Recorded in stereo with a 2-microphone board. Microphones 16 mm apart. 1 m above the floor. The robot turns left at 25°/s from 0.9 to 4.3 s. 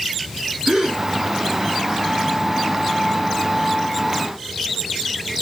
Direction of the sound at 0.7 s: 40° right (ahead or behind).